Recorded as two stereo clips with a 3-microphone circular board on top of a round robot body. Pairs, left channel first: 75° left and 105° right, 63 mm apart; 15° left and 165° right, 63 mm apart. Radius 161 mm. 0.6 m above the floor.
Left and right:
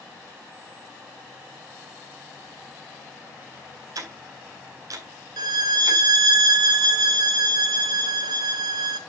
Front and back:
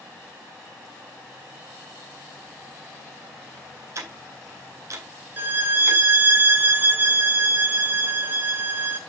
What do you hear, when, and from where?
4.0 s ticking: 125° right, 2.5 m
5.4 s a violin: 105° right, 0.7 m